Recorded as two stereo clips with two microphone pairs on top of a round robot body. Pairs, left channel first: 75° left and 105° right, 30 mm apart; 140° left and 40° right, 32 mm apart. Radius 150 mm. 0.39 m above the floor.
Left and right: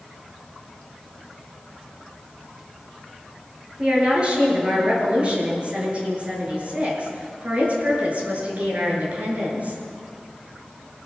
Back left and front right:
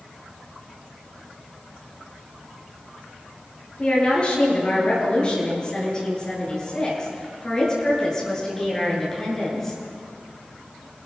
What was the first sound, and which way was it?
A woman speaking, 165° right.